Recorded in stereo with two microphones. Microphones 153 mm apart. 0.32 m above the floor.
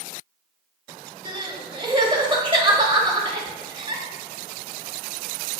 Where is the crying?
35° right (ahead or behind), 1.4 m.